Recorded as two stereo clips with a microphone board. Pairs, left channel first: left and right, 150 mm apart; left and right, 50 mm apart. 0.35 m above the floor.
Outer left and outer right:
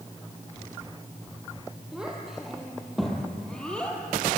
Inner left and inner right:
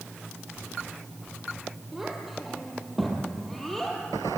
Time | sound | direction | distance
1.9 | a child speaking | 5° right (ahead or behind) | 7 m